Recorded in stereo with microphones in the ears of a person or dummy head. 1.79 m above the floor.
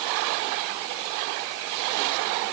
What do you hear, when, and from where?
Only background noise.